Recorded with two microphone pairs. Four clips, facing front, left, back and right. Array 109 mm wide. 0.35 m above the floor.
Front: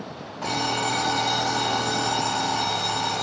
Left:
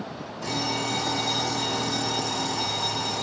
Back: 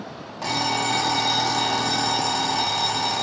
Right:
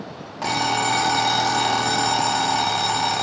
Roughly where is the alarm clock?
Right.